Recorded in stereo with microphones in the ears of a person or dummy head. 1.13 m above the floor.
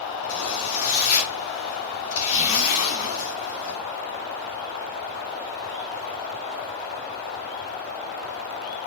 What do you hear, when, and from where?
0.3 s a zipper: 65° left (ahead or behind), 3.5 m